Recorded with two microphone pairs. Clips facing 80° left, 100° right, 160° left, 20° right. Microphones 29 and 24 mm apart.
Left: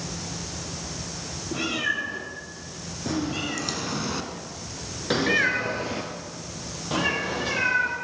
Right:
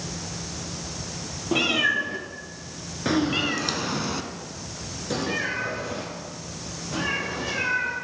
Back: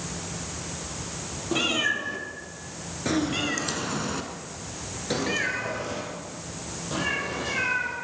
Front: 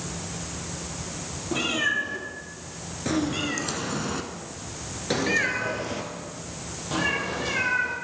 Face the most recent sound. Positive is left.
turn(degrees=55)